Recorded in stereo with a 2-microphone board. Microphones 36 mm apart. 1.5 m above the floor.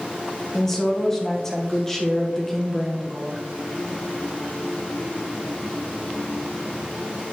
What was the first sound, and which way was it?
A woman speaking, 10° left (ahead or behind).